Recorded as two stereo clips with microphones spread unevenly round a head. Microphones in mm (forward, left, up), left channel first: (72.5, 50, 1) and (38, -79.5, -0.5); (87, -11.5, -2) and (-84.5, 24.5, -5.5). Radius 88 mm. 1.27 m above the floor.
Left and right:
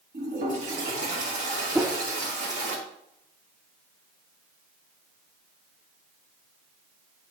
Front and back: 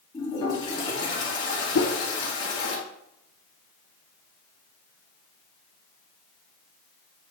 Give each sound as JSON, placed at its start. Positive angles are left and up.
{"t": 0.1, "sound": "a toilet flushing", "azimuth_deg": -80, "distance_m": 2.0}
{"t": 1.8, "sound": "a whoosh", "azimuth_deg": -30, "distance_m": 0.8}